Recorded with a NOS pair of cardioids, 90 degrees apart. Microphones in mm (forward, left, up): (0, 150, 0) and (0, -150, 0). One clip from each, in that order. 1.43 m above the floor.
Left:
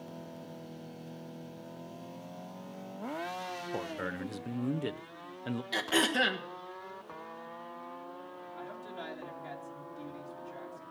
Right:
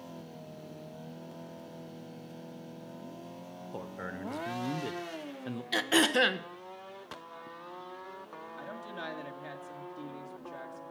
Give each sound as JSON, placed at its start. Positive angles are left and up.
{"t": 3.7, "sound": "a man speaking", "azimuth_deg": 15, "distance_m": 0.6}
{"t": 5.7, "sound": "throat clearing", "azimuth_deg": -20, "distance_m": 1.2}
{"t": 8.6, "sound": "a woman speaking", "azimuth_deg": -30, "distance_m": 2.5}